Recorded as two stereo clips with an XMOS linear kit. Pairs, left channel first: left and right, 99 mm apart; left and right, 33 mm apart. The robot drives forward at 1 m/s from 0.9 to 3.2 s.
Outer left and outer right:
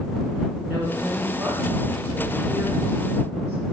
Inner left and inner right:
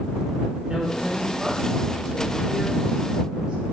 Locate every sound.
0.7 s a woman speaking: 15° right (ahead or behind), 4.5 m; by 3.6 s 35° right (ahead or behind), 2.5 m